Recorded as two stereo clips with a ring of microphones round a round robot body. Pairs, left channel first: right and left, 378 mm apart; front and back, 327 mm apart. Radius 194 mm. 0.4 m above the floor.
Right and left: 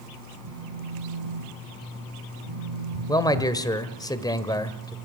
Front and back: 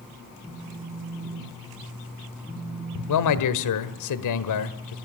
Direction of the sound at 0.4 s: 90° left.